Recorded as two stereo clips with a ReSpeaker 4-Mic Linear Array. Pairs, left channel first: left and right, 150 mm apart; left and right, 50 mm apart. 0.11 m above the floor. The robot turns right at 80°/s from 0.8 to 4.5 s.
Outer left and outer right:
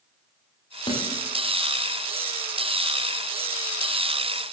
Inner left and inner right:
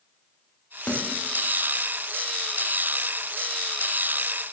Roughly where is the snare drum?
Left.